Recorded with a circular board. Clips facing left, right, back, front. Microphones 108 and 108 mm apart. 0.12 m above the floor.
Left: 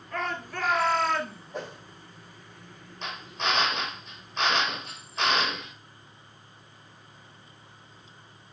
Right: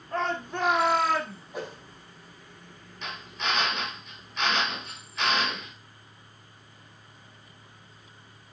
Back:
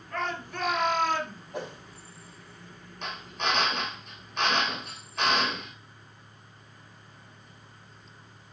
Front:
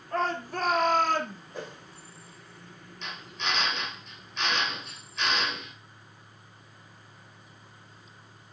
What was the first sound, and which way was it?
A shout, 45° right.